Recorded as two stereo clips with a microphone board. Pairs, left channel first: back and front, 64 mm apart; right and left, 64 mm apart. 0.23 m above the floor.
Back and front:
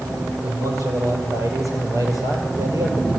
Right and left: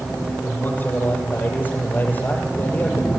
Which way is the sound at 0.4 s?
30° right.